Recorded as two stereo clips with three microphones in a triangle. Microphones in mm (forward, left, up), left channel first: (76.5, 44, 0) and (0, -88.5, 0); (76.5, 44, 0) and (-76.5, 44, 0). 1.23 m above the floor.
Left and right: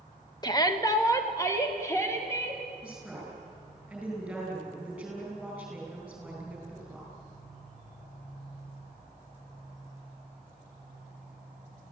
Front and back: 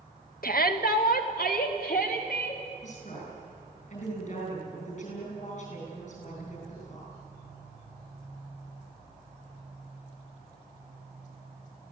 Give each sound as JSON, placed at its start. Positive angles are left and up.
{"t": 0.4, "sound": "a shout", "azimuth_deg": -5, "distance_m": 1.7}
{"t": 2.8, "sound": "a woman speaking", "azimuth_deg": -35, "distance_m": 9.5}